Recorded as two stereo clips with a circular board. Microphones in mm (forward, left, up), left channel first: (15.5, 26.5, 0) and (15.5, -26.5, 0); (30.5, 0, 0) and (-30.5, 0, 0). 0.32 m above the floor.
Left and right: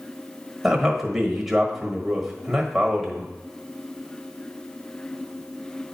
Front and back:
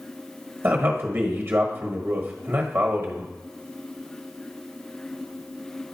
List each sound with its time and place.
0.6 s a man speaking: 170° right, 1.1 m